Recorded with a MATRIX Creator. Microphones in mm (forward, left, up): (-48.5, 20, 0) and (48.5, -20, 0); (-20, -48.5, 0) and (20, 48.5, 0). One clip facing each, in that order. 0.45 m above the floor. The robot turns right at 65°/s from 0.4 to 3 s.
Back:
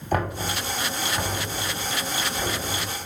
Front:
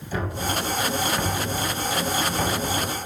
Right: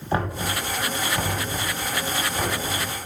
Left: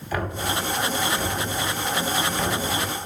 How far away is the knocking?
About 1.6 m.